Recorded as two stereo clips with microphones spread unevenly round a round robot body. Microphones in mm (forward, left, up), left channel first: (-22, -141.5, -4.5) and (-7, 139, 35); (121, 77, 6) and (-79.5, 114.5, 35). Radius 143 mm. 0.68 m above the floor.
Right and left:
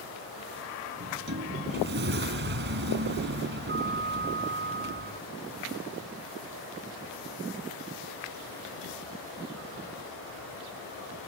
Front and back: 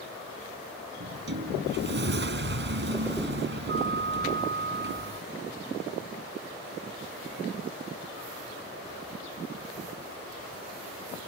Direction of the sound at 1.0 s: 140° left.